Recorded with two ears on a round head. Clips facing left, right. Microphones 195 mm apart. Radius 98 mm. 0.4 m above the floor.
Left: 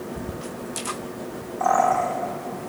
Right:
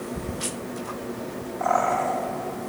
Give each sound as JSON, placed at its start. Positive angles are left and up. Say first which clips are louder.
{"t": 1.6, "sound": "a bird", "louder": "left 3 dB", "side_deg": 50, "distance_m": 7.5}